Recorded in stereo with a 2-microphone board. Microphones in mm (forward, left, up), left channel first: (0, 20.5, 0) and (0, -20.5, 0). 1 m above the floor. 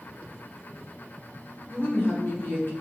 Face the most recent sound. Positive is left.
turn(degrees=55)  # may be behind; listen again after turning